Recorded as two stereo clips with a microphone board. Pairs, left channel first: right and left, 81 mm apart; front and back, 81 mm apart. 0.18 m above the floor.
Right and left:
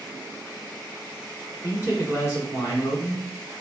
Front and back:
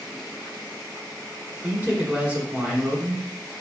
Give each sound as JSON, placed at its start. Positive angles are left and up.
{"t": 1.6, "sound": "a man speaking", "azimuth_deg": -115, "distance_m": 1.3}